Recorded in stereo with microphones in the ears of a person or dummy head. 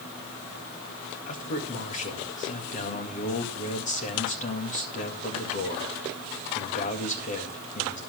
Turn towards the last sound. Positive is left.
turn(degrees=40)  # may be behind; listen again after turning